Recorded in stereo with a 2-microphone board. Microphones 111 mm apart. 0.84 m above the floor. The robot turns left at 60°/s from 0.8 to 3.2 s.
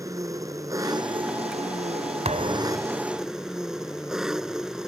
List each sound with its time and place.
0.0 s an engine running: 30° right; by 4.9 s 175° right
2.2 s a thud: 90° right; by 2.9 s 125° right